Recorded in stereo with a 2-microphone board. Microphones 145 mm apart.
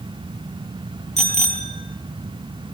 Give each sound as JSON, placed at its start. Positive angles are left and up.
{"t": 1.2, "sound": "a bicycle bell", "side_deg": 50, "distance_m": 3.5}